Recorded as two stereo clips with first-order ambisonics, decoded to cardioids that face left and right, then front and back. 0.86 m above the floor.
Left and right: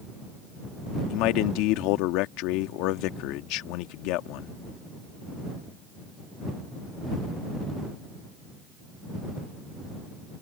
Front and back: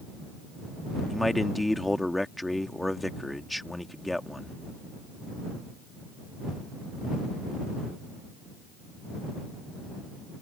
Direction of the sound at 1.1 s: 85° left.